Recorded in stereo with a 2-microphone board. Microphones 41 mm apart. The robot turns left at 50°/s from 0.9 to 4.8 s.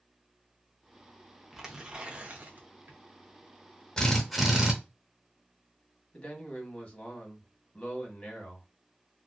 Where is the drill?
20° left, 0.6 m; by 4.8 s 20° right, 0.6 m.